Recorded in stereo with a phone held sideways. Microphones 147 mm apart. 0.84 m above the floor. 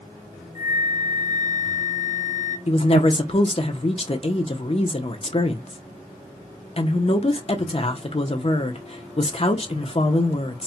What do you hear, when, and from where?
0.6 s a flute: 65° left (ahead or behind), 1.4 m
2.7 s a woman speaking: 40° left (ahead or behind), 0.6 m